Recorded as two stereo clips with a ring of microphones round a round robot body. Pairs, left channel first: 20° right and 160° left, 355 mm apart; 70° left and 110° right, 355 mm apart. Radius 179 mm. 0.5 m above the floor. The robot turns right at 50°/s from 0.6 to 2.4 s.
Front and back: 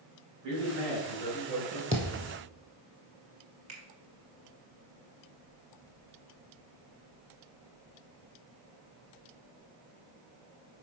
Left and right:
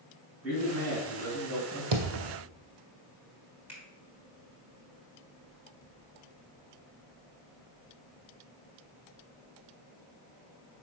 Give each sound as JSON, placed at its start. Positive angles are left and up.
{"t": 0.4, "sound": "a man speaking", "azimuth_deg": 160, "distance_m": 4.0}
{"t": 1.9, "sound": "a thud", "azimuth_deg": -130, "distance_m": 1.8}
{"t": 3.7, "sound": "a finger snap", "azimuth_deg": 165, "distance_m": 3.5}